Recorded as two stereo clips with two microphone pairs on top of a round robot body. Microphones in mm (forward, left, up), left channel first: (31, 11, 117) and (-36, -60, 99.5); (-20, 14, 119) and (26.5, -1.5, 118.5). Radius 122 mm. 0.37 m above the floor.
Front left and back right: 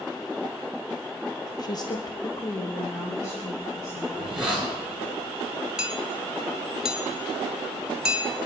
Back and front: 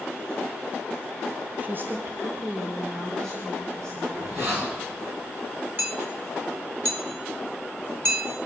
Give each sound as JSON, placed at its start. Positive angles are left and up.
{"t": 1.6, "sound": "a woman speaking", "azimuth_deg": 15, "distance_m": 1.1}
{"t": 4.1, "sound": "a hiss", "azimuth_deg": -55, "distance_m": 4.5}
{"t": 5.8, "sound": "hammering", "azimuth_deg": -55, "distance_m": 2.0}